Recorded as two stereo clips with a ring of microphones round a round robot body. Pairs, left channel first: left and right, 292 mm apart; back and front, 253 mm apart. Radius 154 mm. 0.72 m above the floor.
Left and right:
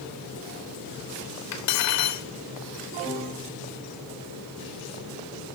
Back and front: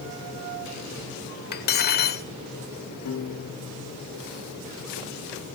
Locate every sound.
1.5 s cutlery clinking: 125° left, 1.4 m
3.0 s a piano: 165° left, 2.5 m